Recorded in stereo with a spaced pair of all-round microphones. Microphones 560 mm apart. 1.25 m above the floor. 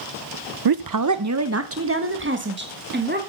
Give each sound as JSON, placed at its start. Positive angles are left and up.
{"t": 0.7, "sound": "a woman speaking", "side_deg": -45, "distance_m": 0.6}